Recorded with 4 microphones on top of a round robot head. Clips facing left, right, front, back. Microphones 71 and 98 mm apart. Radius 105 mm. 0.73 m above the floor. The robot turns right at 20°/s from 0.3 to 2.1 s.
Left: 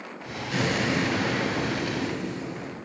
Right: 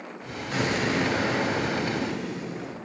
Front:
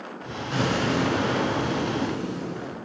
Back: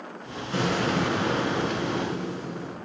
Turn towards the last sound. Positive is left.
turn(degrees=-5)